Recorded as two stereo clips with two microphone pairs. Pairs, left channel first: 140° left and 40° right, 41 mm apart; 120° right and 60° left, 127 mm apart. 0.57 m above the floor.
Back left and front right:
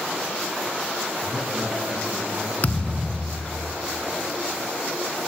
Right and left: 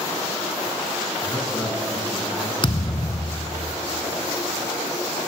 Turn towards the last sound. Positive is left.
turn(degrees=-170)